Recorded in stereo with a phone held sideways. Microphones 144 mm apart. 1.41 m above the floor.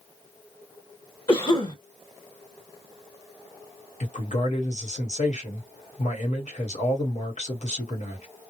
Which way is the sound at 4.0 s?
60° left (ahead or behind).